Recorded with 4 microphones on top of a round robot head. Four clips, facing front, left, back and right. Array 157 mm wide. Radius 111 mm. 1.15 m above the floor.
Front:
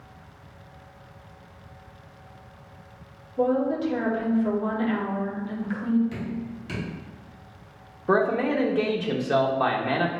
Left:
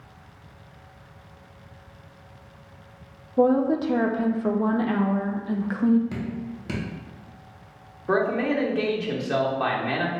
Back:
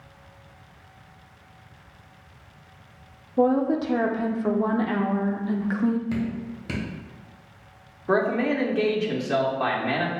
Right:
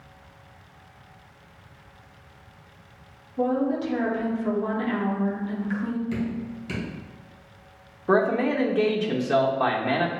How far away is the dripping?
About 1.3 m.